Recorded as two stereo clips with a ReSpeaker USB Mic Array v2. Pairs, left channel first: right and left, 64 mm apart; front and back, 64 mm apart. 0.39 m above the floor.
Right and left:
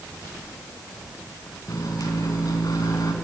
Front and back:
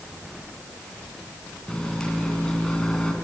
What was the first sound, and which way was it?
A microwave, 75° right.